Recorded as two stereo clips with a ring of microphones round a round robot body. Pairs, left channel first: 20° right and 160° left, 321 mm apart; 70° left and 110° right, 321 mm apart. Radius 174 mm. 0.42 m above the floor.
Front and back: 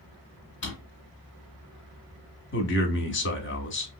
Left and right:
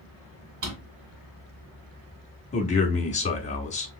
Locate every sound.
0.6 s a drawer: 80° right, 2.5 m
2.5 s a man speaking: 10° left, 1.0 m